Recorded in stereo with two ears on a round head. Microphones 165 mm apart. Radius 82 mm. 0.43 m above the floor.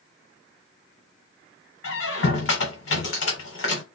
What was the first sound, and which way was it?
A squeak, 75° left (ahead or behind).